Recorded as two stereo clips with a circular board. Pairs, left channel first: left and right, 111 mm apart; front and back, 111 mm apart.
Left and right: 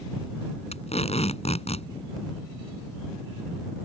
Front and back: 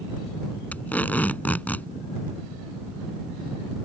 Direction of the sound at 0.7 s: 75° left.